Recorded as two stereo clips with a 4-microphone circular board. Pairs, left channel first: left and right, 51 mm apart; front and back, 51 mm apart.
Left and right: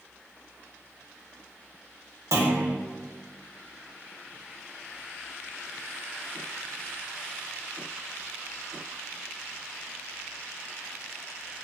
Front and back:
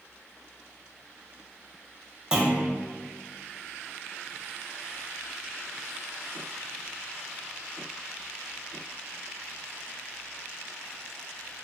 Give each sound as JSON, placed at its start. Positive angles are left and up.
{"t": 2.3, "sound": "a clunk", "azimuth_deg": -105, "distance_m": 0.9}